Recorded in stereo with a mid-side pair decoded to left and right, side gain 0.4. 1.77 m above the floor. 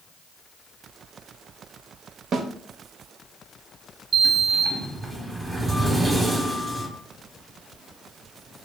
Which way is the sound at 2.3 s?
60° right.